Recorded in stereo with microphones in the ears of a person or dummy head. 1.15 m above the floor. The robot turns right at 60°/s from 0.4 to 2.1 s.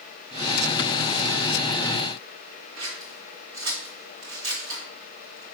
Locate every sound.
2.8 s scissors: 60° right (ahead or behind), 1.4 m